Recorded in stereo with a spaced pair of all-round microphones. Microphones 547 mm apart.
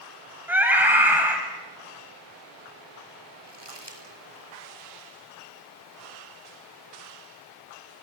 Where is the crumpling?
45° right (ahead or behind), 5 m.